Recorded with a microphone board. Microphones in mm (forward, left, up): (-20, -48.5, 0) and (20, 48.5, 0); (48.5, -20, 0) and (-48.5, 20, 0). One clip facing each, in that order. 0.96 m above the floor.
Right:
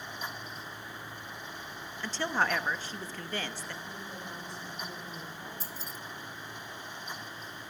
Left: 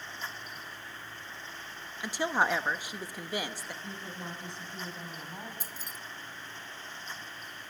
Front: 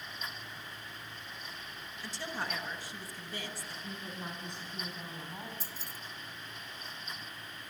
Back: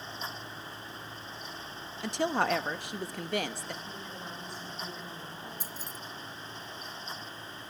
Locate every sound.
2.0 s a woman speaking: 145° left, 1.0 m
3.8 s a woman speaking: 45° left, 10 m
5.6 s keys jangling: 115° left, 1.1 m